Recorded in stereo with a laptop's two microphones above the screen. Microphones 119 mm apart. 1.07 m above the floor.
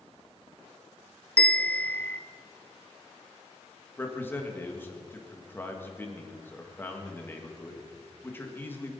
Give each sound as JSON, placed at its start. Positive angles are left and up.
{"t": 1.4, "sound": "a bell", "side_deg": 10, "distance_m": 1.2}
{"t": 4.0, "sound": "a man speaking", "side_deg": 15, "distance_m": 1.7}